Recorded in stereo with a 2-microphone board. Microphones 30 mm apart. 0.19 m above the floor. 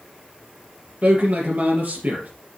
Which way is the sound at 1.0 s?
60° right (ahead or behind).